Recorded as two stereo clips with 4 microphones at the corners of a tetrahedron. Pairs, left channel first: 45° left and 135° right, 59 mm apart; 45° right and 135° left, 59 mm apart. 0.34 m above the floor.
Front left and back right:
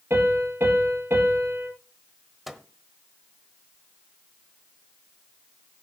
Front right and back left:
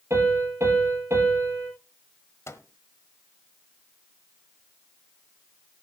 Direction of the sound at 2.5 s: 45° right.